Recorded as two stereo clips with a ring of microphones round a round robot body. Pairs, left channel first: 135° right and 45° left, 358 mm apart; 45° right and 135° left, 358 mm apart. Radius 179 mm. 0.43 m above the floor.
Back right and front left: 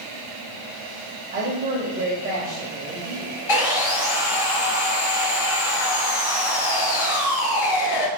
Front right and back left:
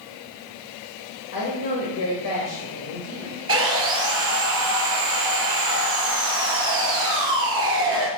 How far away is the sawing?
About 2.0 m.